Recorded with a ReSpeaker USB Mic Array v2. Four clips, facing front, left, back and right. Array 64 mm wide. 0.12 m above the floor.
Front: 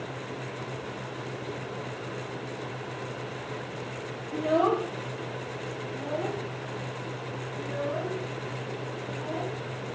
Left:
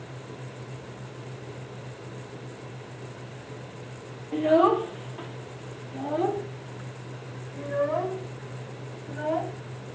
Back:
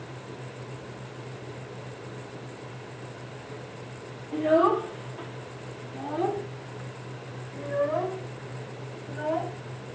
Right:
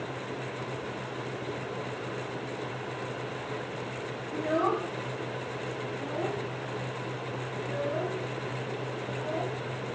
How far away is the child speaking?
About 2.5 m.